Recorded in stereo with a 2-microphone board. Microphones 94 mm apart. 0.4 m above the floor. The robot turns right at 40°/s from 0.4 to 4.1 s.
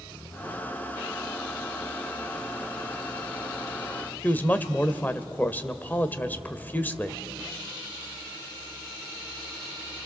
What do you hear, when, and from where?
4.2 s a woman speaking: 20° left (ahead or behind), 1.3 m